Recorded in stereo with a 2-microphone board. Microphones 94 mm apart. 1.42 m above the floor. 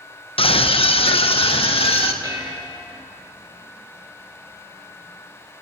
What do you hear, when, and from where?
0.4 s a scream: 75° left (ahead or behind), 1.0 m; by 2.1 s 80° left, 2.0 m
2.2 s dishes clattering: 50° right (ahead or behind), 4 m